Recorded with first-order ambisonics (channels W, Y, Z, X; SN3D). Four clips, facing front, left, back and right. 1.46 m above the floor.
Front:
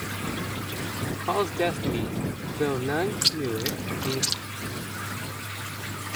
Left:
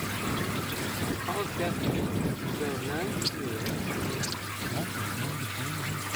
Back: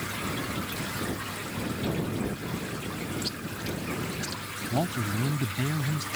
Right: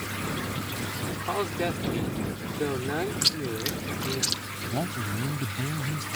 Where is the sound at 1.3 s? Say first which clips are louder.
Right 5 dB, front 9 dB; 15° right.